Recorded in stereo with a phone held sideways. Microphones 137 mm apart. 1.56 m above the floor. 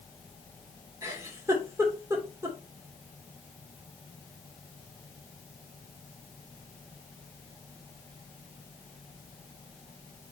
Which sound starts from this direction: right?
A giggle, at 1.0 s.